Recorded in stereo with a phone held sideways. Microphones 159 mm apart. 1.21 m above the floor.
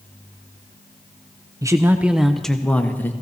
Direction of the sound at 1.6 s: 20° right (ahead or behind).